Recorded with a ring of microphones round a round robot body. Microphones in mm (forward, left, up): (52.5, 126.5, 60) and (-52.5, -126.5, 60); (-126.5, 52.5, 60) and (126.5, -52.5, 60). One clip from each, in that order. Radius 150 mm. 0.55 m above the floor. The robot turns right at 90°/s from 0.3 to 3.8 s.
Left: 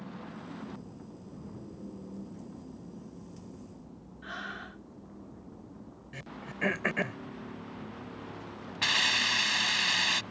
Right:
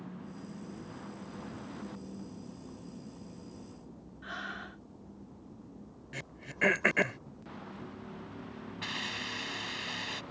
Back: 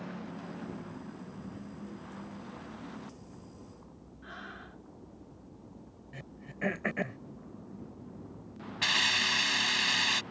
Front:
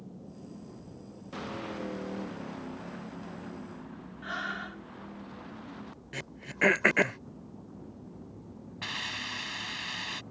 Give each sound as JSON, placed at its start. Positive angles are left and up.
{"t": 4.2, "sound": "breathing", "azimuth_deg": -30}
{"t": 6.1, "sound": "throat clearing", "azimuth_deg": -50}
{"t": 8.8, "sound": "a hiss", "azimuth_deg": 110}